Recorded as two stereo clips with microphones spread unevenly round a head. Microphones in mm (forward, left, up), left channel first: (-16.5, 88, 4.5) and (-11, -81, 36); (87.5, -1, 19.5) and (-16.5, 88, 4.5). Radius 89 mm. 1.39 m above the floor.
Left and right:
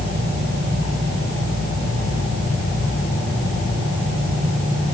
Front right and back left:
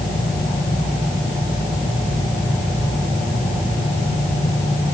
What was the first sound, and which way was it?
Only background noise.